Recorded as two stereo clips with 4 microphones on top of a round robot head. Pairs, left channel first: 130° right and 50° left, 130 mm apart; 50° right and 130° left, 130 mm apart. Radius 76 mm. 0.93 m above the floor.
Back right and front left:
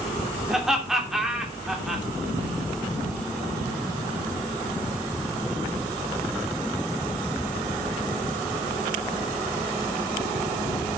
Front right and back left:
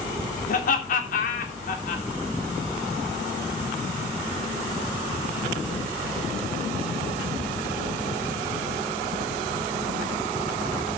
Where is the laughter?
40° right, 3 m.